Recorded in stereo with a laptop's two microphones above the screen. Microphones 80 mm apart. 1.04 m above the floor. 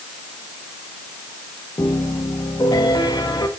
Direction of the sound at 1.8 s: 60° left (ahead or behind).